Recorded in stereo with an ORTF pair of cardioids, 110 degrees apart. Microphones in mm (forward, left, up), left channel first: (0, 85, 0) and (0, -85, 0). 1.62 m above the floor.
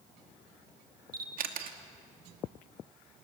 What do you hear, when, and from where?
1.1 s a camera shutter: 60° right, 2.5 m